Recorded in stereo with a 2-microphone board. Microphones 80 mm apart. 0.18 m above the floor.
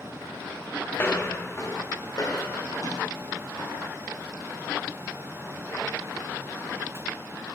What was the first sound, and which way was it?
Footsteps, 25° left (ahead or behind).